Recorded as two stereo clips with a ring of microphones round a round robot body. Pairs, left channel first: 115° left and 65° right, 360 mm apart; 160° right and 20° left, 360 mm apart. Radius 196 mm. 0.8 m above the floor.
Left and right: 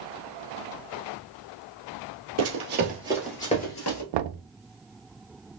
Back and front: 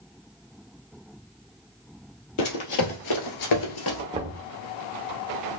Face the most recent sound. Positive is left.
turn(degrees=-55)